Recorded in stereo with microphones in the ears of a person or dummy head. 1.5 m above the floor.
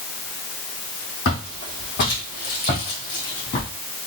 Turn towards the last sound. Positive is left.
turn(degrees=40)  # may be behind; listen again after turning